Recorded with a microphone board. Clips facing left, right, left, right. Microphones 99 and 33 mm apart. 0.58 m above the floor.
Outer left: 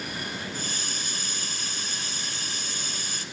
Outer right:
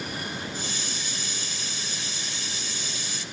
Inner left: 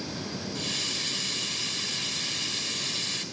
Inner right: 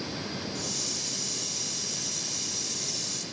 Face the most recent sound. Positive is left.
turn(degrees=50)  # may be behind; listen again after turning